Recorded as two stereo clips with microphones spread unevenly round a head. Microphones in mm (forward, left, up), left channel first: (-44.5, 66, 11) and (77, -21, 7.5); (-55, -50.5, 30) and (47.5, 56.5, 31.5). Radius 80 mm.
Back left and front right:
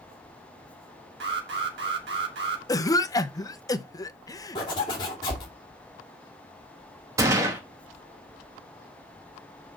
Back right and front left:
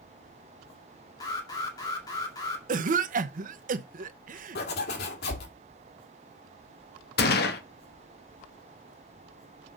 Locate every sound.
1.2 s an alarm: 65° right, 2 m
2.7 s a cough: 75° left, 0.8 m
4.5 s a zipper: 150° right, 2.5 m
7.2 s a gunshot: 110° right, 1.2 m